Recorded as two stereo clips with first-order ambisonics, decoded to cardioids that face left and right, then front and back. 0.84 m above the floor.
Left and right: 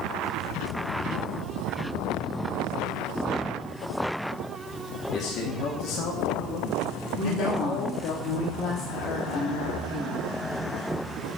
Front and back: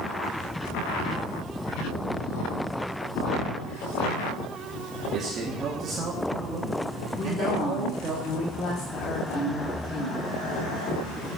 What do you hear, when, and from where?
5.1 s a man speaking: 130° left, 1.7 m
7.2 s a woman speaking: 40° left, 5 m